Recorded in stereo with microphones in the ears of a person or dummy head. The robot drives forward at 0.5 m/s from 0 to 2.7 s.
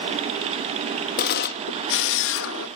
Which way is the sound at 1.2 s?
50° left (ahead or behind).